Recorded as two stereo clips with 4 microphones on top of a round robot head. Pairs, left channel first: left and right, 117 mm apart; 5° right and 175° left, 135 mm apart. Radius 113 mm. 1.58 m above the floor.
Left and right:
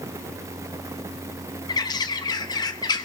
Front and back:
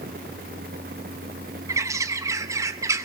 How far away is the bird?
About 1.0 m.